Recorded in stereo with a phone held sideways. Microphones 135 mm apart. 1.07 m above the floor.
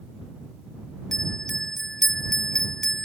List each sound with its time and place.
1.1 s a bell: 5° left (ahead or behind)